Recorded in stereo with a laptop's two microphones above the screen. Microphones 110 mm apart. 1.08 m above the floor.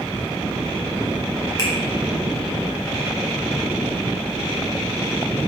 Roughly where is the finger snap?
Left.